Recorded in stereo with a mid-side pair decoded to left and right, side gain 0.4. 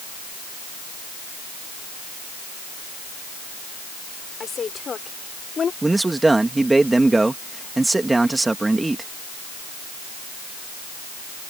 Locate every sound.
4.4 s a woman speaking: 50° left
5.8 s a man speaking: 20° right